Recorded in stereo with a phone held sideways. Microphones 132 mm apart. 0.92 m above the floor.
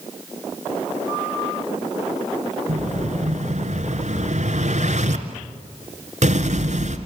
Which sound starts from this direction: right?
An explosion, at 2.7 s.